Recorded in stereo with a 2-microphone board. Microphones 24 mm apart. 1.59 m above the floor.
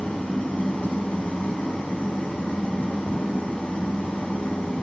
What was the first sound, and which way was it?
An engine running, 65° left (ahead or behind).